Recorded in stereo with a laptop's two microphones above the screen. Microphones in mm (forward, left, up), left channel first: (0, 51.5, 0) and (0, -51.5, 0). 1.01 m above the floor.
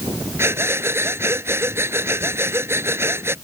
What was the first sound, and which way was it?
Breathing, 25° right (ahead or behind).